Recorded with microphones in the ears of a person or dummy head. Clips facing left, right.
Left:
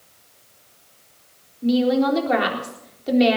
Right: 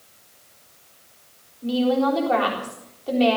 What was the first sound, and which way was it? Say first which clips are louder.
A woman speaking: left 2 dB; 25° left (ahead or behind).